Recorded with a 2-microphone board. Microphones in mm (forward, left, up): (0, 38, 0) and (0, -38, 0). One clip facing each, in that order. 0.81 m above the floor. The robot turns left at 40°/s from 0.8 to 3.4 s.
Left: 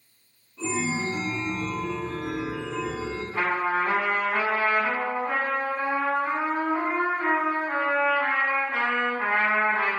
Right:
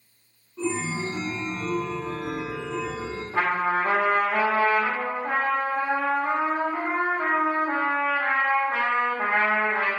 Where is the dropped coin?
No dropped coin in this recording.